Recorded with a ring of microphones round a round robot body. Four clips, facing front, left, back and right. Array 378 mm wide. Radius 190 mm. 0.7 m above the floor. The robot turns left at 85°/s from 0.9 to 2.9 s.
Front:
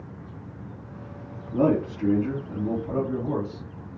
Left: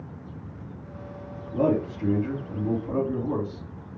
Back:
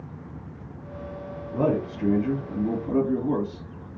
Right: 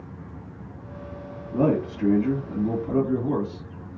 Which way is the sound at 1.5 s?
40° right.